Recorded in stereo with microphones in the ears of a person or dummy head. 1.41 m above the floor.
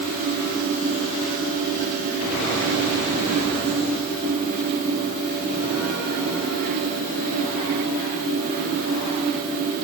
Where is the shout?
I don't hear a shout.